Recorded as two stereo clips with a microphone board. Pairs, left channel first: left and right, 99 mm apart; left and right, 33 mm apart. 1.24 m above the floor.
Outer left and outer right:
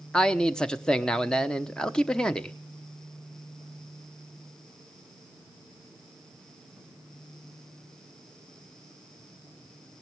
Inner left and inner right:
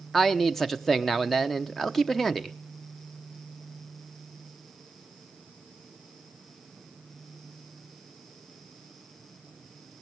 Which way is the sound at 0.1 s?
10° left (ahead or behind).